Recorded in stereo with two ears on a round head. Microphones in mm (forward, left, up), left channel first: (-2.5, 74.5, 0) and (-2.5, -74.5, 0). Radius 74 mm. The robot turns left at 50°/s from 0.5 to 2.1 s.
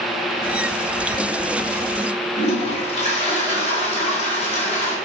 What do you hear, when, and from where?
2.4 s a toilet flushing: 45° left (ahead or behind), 3.5 m